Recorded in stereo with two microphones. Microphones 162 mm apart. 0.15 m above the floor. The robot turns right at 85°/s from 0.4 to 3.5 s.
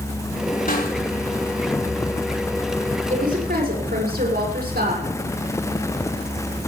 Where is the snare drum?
60° left (ahead or behind), 5.5 m; by 0.9 s 75° left (ahead or behind), 5.5 m.